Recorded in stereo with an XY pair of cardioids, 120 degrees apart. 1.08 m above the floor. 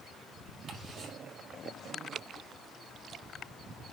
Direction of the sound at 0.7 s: 55° right.